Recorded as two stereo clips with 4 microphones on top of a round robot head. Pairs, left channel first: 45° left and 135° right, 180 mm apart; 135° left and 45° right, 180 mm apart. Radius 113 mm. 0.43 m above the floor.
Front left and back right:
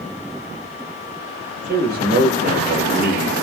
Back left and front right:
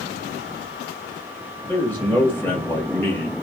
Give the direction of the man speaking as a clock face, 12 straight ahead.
5 o'clock.